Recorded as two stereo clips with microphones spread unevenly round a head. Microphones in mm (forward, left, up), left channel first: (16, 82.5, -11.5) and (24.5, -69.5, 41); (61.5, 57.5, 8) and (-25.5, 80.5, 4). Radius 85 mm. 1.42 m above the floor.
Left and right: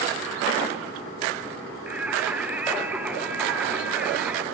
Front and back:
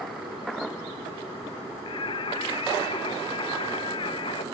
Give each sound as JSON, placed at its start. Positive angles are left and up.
{"t": 1.9, "sound": "singing", "azimuth_deg": -20, "distance_m": 0.6}